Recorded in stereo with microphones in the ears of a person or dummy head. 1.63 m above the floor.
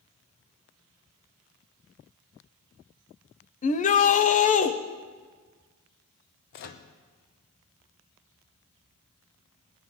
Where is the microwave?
60° left (ahead or behind), 0.9 m.